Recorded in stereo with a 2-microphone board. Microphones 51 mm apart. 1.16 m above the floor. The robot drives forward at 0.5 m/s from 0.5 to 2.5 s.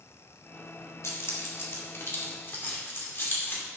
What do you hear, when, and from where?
1.0 s keys jangling: 60° left (ahead or behind), 1.9 m; by 3.6 s 45° left (ahead or behind), 2.5 m